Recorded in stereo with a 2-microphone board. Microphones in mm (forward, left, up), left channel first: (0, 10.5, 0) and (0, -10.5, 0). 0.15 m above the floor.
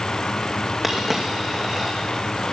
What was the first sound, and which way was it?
A dropped coin, 5° right (ahead or behind).